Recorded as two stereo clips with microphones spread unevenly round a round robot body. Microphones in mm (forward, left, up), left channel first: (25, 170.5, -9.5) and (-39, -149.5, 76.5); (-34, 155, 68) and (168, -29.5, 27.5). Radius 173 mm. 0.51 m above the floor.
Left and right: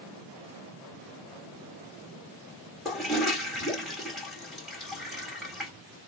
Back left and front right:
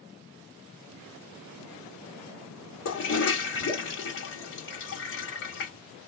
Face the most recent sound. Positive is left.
turn(degrees=145)